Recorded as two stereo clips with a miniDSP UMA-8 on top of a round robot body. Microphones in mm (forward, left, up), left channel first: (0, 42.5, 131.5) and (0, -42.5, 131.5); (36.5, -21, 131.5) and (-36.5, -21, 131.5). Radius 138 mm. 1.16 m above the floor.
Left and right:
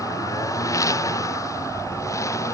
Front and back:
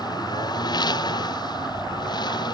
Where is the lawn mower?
35° left.